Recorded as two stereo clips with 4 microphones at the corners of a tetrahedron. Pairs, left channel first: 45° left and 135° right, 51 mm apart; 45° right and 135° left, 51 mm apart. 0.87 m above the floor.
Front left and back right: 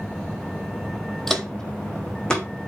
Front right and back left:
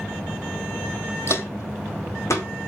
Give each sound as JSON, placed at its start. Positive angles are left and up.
{"t": 1.3, "sound": "footsteps", "azimuth_deg": -40, "distance_m": 1.6}